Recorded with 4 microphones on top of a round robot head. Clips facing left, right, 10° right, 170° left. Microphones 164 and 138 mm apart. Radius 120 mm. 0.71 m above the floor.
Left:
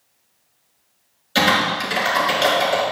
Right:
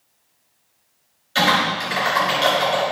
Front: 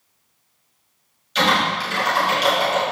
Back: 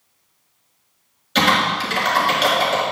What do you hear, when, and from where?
1.4 s typing on a keyboard: 140° left, 4 m